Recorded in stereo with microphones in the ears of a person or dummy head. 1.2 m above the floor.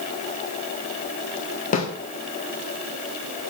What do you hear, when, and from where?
1.7 s a snare drum: 40° left (ahead or behind), 1.6 m